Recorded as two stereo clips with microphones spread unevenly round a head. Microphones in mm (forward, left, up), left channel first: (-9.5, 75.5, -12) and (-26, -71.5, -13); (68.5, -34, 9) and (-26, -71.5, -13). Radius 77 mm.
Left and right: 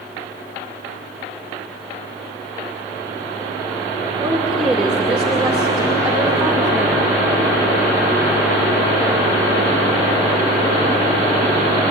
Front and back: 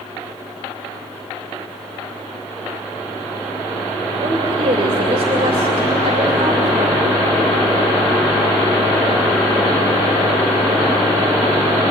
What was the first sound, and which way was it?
A woman speaking, straight behind.